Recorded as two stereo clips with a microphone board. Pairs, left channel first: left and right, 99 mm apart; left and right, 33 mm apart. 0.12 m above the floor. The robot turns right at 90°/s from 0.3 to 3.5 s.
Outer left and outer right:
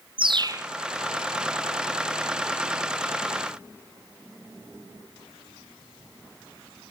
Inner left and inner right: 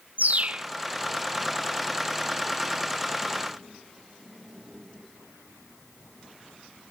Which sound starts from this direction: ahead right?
A bird, at 0.2 s.